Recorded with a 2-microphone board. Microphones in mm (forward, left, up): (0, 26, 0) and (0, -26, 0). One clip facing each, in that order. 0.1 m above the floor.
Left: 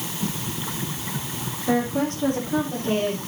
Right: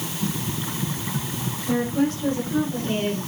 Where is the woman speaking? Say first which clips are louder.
Even; 50° left (ahead or behind), 5.5 m.